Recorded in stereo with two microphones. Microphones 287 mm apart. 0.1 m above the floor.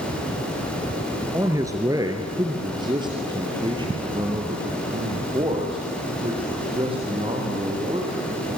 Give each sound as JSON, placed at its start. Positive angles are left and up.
{"t": 1.3, "sound": "a man speaking", "side_deg": -10, "distance_m": 1.7}